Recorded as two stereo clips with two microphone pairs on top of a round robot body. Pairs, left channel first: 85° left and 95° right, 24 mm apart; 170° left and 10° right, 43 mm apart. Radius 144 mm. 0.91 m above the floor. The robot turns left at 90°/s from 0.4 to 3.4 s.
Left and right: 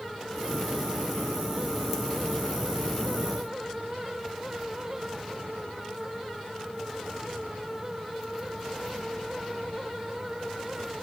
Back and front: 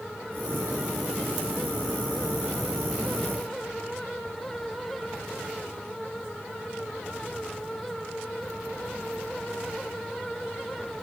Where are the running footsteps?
No running footsteps in this recording.